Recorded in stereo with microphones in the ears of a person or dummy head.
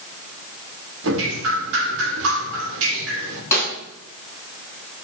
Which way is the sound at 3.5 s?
20° left (ahead or behind).